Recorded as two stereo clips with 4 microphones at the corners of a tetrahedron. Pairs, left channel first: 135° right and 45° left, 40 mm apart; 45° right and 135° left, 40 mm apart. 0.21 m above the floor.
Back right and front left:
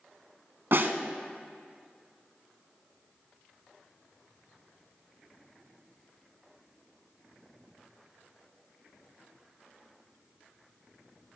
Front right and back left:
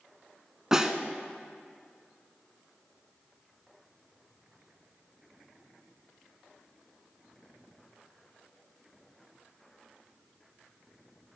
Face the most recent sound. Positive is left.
turn(degrees=60)